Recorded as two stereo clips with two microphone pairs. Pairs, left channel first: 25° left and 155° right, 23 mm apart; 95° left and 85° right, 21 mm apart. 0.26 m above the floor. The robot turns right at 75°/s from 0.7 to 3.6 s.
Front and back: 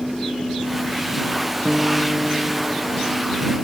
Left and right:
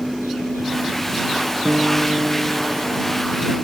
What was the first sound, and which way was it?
A guitar, 100° right.